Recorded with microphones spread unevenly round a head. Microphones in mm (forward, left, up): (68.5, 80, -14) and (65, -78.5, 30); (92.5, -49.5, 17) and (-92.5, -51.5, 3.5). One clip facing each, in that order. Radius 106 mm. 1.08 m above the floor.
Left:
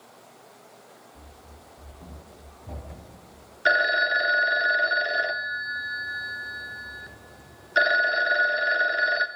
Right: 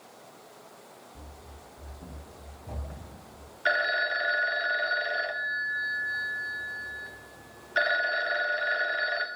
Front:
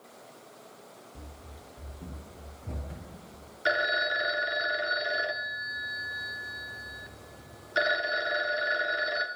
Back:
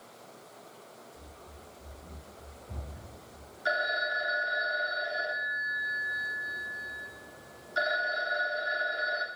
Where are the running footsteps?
20° right, 3 m; by 3.5 s 15° left, 4.5 m.